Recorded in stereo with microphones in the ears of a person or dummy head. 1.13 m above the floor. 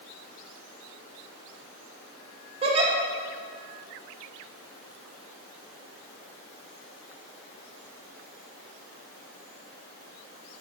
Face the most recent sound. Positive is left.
turn(degrees=-25)  # may be behind; listen again after turning